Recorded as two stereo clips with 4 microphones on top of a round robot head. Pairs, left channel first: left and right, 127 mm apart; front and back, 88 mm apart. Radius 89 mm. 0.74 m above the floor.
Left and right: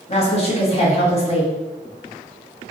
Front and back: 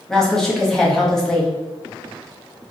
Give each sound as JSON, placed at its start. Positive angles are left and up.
{"t": 0.1, "sound": "a woman speaking", "azimuth_deg": 80, "distance_m": 0.9}